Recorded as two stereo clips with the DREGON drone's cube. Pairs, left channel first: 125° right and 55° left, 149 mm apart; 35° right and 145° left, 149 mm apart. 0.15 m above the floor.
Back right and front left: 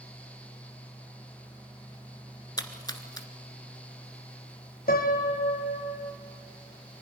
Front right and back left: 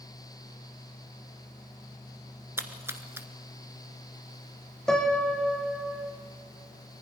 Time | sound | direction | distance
2.6 | a splash | 160° right | 1.4 m
4.9 | a piano | 120° right | 2 m